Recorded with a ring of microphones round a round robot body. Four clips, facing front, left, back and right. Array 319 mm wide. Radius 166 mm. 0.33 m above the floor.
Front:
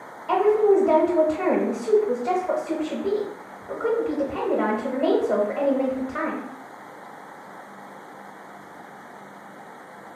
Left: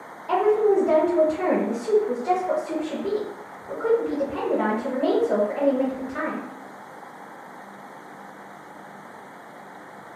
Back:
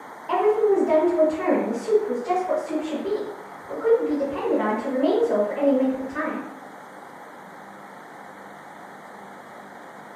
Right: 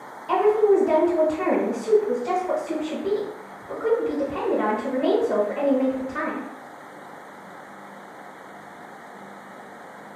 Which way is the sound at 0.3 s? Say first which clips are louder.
Right 1 dB, front 1 dB; 20° left.